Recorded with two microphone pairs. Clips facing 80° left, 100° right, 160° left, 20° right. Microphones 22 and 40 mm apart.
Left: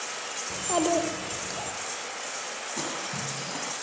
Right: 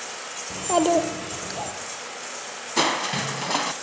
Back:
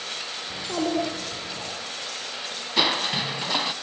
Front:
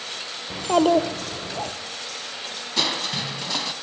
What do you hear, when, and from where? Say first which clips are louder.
0.5 s a child speaking: right 5 dB, front 9 dB; 30° right, 1.9 m
2.8 s crushing: right 13 dB, back 2 dB; 125° right, 1.0 m